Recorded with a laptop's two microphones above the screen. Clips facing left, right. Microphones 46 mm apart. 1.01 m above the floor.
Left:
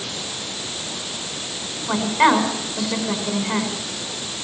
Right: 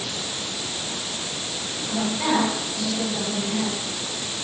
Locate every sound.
1.9 s a woman speaking: 75° left (ahead or behind), 5 m